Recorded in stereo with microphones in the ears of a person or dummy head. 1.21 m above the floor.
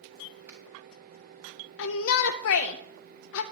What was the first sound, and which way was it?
A finger snap, 15° right (ahead or behind).